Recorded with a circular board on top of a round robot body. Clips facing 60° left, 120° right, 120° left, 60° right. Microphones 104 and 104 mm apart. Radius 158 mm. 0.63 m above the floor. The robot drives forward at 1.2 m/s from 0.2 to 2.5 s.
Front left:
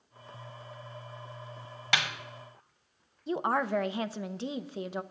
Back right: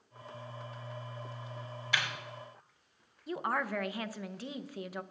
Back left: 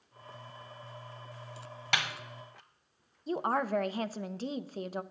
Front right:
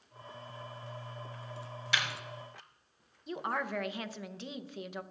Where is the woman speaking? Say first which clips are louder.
Front left 5 dB, back left 5 dB; 105° left, 0.7 m.